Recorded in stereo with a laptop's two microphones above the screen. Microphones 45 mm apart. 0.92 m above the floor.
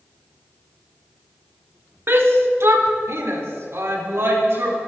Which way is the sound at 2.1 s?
60° right (ahead or behind).